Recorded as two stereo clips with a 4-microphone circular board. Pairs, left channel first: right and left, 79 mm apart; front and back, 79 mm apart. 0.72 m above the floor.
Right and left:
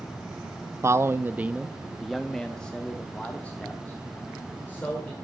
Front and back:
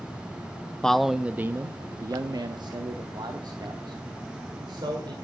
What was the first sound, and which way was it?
A man speaking, 75° left.